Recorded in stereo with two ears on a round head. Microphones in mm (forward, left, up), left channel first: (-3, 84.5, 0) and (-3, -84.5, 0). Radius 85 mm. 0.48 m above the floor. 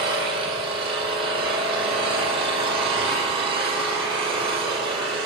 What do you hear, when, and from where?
0.0 s an engine running: 30° right (ahead or behind), 8.5 m